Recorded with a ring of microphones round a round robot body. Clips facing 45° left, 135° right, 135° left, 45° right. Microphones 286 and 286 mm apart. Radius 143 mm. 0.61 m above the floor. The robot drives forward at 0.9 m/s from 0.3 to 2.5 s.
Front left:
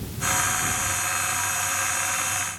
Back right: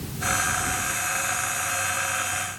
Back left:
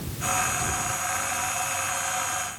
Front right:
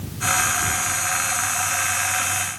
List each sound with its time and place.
Only background noise.